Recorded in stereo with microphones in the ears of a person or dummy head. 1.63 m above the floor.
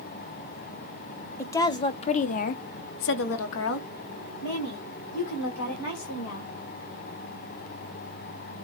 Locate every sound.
1.4 s a woman speaking: 15° left (ahead or behind), 0.9 m; by 6.5 s 55° left (ahead or behind), 2.5 m